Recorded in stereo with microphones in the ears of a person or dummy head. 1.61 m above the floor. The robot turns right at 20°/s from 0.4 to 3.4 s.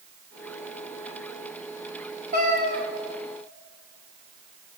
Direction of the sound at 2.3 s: 50° right (ahead or behind).